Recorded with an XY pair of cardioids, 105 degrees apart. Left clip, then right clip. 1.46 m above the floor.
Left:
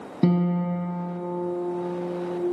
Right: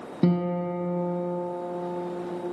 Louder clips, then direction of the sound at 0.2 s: Left 1 dB; 5° left.